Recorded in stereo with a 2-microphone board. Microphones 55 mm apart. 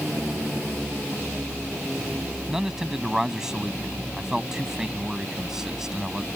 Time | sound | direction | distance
2.5 | a man speaking | 10° right (ahead or behind) | ?